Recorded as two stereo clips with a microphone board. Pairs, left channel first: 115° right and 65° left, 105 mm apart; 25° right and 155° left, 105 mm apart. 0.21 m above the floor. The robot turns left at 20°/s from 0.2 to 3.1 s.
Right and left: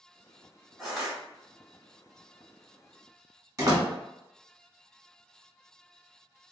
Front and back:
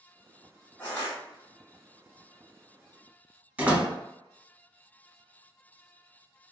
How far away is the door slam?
About 1.2 m.